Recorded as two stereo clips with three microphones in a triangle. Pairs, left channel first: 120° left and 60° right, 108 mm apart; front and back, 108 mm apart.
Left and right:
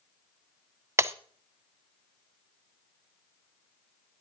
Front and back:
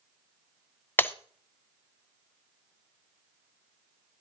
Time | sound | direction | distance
1.0 | breaking glass | 40° right | 0.6 m